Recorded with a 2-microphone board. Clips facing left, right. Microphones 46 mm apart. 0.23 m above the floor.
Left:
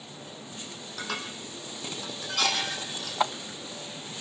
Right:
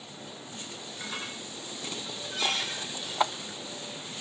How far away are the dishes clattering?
About 5 m.